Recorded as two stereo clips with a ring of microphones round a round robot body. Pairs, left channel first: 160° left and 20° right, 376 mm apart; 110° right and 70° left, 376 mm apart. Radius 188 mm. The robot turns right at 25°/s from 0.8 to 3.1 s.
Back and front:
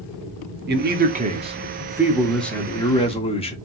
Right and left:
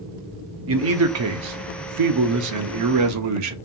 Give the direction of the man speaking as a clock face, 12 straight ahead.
11 o'clock.